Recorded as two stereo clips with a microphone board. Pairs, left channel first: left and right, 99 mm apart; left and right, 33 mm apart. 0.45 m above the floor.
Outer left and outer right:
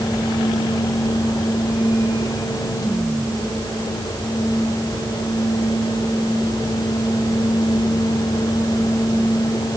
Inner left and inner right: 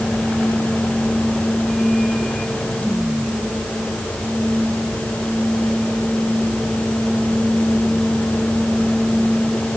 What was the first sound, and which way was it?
Only background noise.